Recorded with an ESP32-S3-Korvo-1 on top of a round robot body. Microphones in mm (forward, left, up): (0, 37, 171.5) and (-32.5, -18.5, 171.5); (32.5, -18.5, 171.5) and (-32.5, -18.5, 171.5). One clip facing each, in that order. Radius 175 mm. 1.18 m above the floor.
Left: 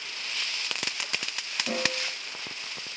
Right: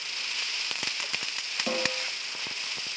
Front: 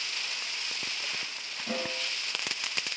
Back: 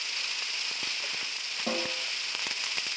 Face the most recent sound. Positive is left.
turn(degrees=-150)